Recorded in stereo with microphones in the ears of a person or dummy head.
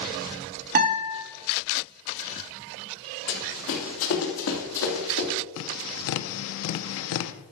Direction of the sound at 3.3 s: 60° left (ahead or behind).